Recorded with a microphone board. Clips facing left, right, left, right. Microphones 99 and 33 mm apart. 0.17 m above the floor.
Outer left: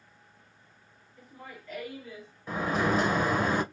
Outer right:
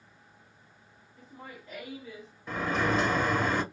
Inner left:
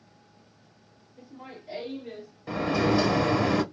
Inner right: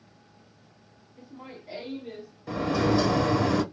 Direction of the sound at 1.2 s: 25° right (ahead or behind).